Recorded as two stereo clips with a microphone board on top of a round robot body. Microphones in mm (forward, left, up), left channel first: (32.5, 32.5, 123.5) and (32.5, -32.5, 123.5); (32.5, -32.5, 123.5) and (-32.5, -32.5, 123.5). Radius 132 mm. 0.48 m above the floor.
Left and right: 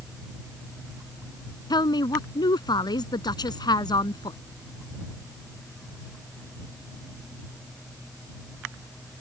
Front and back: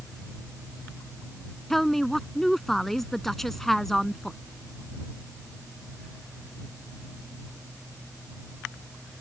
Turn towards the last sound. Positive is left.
turn(degrees=85)